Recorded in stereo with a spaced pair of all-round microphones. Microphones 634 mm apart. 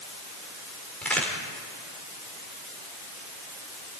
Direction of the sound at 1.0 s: Centre (ahead or behind).